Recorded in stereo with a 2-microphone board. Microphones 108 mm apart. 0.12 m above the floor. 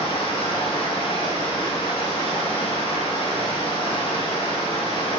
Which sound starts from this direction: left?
Running water, at 0.0 s.